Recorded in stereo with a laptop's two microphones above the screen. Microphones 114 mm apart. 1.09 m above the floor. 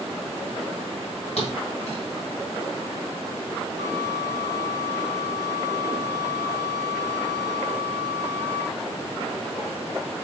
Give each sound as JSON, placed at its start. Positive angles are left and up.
{"t": 1.4, "sound": "a thud", "side_deg": 65, "distance_m": 3.0}
{"t": 3.8, "sound": "a flute", "side_deg": 30, "distance_m": 1.5}